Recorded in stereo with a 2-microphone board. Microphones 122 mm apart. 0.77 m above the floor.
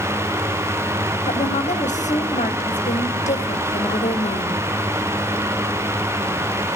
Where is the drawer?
I don't hear a drawer.